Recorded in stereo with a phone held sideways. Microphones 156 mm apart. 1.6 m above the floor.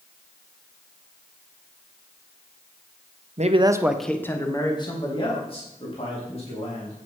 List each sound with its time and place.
3.4 s a man speaking: 50° right (ahead or behind), 0.9 m; by 7.0 s 45° left (ahead or behind), 5 m